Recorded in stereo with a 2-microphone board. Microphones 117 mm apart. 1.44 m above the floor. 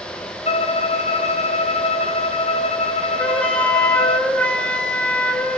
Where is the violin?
60° left (ahead or behind), 1.2 m.